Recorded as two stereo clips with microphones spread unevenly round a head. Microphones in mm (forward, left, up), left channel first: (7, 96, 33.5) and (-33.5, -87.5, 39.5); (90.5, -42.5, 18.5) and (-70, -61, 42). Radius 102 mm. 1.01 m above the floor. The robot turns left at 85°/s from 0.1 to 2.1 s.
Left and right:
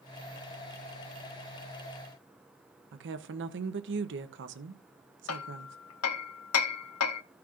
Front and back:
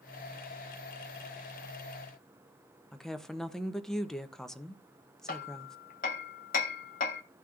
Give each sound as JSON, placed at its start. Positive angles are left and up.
{"t": 2.9, "sound": "a woman speaking", "azimuth_deg": -80, "distance_m": 0.7}
{"t": 5.3, "sound": "hammering", "azimuth_deg": 65, "distance_m": 0.9}